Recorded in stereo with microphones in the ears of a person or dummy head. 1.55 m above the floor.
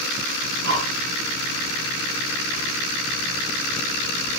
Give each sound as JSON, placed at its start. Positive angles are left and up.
{"t": 0.4, "sound": "breathing", "side_deg": -55, "distance_m": 4.0}